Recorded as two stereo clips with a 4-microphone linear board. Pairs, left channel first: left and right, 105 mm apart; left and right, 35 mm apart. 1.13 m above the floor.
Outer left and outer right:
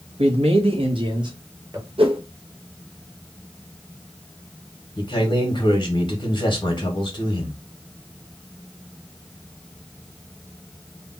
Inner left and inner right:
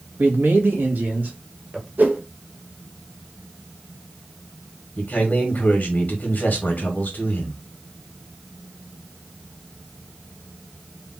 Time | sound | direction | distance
0.2 | a man speaking | 80° right | 1.2 m
2.0 | a whoosh | 65° right (ahead or behind) | 0.8 m
5.0 | a man speaking | 50° left (ahead or behind) | 1.4 m